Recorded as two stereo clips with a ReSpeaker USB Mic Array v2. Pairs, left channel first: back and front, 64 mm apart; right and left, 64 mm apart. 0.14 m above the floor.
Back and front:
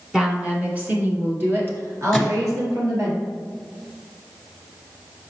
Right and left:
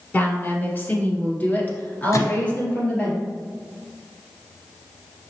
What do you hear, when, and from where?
0.1 s a woman speaking: 65° right, 1.3 m; by 3.1 s 25° right, 2.5 m
2.1 s a microwave: 85° right, 1.6 m